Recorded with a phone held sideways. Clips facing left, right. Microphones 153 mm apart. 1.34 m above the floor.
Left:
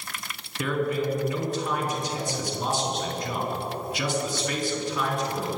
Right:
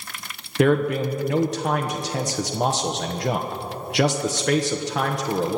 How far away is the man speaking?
About 1.3 m.